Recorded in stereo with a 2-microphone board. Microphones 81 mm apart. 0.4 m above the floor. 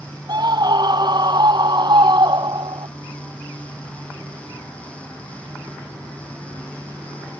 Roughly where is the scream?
Right.